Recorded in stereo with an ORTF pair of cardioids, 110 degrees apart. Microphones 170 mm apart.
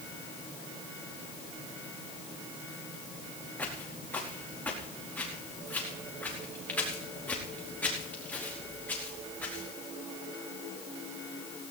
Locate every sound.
3.6 s footsteps: 10° left, 4.5 m